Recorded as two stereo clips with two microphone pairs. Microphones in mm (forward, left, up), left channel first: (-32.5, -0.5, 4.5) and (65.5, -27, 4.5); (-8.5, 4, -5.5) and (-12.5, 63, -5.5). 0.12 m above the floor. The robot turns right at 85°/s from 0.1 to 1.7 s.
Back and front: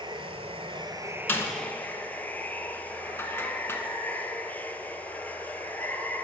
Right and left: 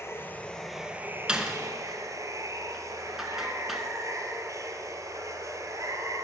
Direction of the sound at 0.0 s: 45° right.